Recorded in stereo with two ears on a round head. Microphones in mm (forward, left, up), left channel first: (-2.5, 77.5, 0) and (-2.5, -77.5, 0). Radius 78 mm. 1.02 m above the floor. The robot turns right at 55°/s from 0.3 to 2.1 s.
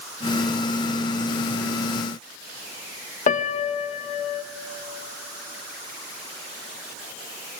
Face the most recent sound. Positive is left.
turn(degrees=40)  # may be behind; listen again after turning